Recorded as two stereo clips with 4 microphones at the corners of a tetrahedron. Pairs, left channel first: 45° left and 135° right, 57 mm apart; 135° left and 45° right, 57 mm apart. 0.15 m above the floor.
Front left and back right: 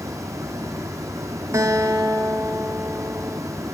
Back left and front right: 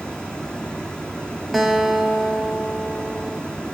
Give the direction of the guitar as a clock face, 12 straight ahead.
4 o'clock.